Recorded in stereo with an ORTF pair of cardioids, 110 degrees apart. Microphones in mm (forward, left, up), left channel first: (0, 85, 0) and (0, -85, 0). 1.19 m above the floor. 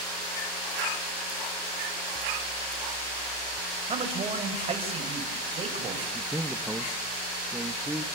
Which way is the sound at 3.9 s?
35° right.